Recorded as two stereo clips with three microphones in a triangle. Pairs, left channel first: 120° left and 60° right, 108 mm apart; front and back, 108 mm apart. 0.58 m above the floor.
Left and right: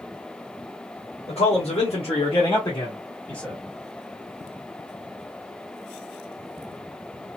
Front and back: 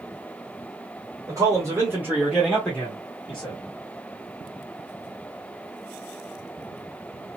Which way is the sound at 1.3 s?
125° left.